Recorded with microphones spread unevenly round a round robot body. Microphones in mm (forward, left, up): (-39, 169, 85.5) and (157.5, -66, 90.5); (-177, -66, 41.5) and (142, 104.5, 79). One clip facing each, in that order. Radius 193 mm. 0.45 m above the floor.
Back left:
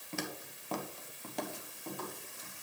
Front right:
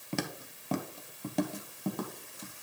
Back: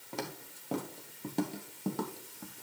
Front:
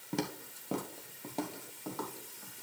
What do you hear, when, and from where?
0.1 s footsteps: 30° right, 0.8 m; by 2.5 s 105° right, 1.4 m